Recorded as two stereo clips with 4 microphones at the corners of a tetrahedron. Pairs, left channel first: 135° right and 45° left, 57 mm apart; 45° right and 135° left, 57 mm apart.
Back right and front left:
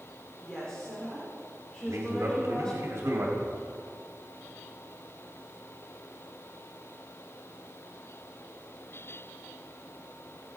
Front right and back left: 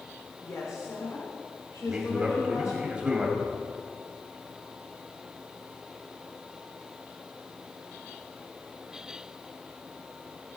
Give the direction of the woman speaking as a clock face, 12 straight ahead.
2 o'clock.